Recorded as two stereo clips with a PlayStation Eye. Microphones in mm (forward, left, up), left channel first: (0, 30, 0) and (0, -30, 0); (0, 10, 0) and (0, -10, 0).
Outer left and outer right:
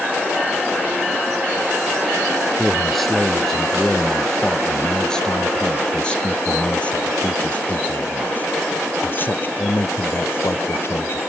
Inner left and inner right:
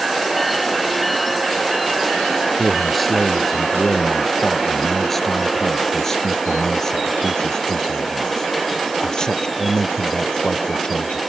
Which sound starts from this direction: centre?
A man speaking, at 2.6 s.